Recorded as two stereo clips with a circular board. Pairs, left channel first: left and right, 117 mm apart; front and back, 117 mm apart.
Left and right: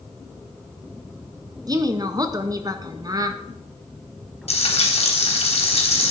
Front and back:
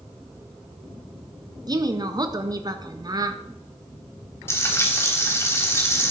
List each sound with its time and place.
1.7 s a woman speaking: 135° right, 1.3 m
4.5 s frying: 70° left, 3.5 m